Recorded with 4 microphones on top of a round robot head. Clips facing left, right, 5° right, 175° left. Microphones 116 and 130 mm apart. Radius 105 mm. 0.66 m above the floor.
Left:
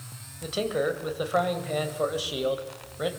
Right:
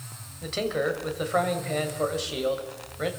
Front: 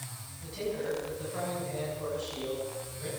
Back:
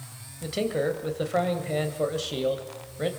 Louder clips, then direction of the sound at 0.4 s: Even, back 7 dB; 170° left.